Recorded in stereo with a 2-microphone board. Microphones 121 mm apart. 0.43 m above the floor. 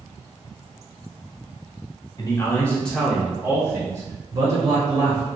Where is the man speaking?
30° left (ahead or behind), 1.5 m; by 5.3 s 50° right (ahead or behind), 2.5 m.